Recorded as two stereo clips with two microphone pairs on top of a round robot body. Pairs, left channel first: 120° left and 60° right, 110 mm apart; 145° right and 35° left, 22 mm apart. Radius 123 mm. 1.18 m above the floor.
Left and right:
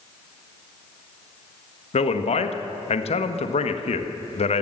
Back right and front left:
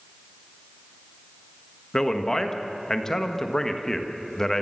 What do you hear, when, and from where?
1.9 s a man speaking: 150° left, 1.5 m